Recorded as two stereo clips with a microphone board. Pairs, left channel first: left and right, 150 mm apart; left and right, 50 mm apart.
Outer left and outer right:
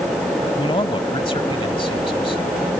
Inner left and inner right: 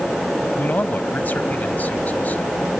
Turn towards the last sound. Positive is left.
turn(degrees=35)  # may be behind; listen again after turning